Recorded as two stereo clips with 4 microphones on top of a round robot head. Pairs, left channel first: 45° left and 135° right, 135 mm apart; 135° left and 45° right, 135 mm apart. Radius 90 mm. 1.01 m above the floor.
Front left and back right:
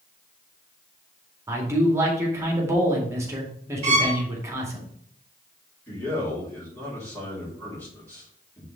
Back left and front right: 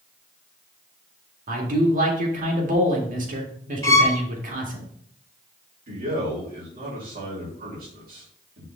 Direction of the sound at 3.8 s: 160° right.